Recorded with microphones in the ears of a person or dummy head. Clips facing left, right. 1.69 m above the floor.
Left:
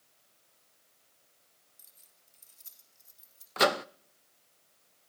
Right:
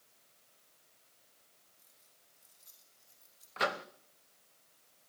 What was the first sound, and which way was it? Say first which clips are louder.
Keys jangling: even; 60° left (ahead or behind).